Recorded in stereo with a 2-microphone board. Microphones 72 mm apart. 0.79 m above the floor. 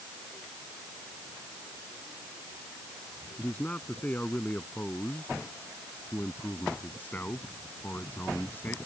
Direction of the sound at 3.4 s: 20° left (ahead or behind).